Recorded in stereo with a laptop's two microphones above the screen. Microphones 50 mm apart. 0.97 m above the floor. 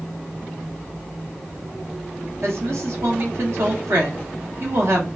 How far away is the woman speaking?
About 1.1 m.